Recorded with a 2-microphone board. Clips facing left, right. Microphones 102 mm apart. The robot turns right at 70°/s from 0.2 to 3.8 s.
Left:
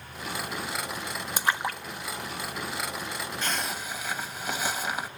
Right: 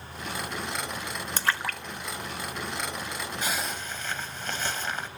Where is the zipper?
15° right (ahead or behind), 2.5 m; by 5.1 s 10° left (ahead or behind), 2.5 m.